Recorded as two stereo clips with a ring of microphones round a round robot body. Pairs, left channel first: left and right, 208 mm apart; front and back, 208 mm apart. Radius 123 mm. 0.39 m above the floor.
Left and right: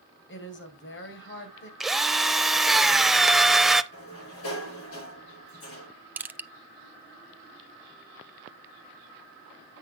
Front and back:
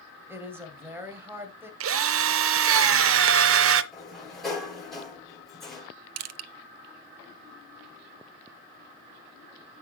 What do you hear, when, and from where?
0.3 s a woman speaking: 100° left, 2.5 m
1.8 s a drill: straight behind, 0.7 m
3.9 s a sliding door: 90° left, 7 m
6.2 s crushing: 170° right, 0.5 m